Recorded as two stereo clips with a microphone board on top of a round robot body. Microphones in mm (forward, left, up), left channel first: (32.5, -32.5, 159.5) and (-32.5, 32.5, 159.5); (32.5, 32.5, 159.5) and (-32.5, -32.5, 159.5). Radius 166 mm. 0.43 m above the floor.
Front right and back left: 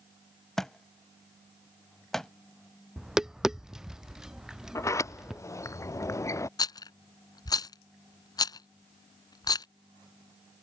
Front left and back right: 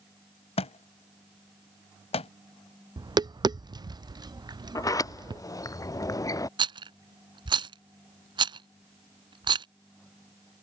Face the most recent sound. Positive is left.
turn(degrees=-95)